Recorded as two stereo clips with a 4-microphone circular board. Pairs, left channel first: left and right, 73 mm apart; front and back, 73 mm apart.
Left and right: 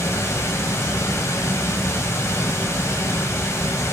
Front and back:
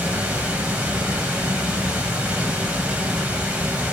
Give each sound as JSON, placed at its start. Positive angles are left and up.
{"t": 0.0, "sound": "running water", "azimuth_deg": 120, "distance_m": 1.0}